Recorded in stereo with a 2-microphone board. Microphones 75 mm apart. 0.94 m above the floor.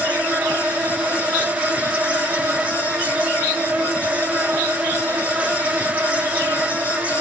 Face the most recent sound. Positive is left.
turn(degrees=-20)  # may be behind; listen again after turning